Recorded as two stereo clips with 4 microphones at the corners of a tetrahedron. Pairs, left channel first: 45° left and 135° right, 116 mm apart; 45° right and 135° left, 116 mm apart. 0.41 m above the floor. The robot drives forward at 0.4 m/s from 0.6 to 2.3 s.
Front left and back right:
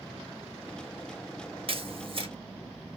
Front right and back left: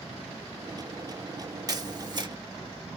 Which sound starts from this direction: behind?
A camera shutter, at 1.7 s.